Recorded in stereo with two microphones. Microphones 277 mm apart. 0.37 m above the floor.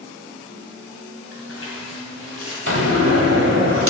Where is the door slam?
50° right (ahead or behind), 1.7 m.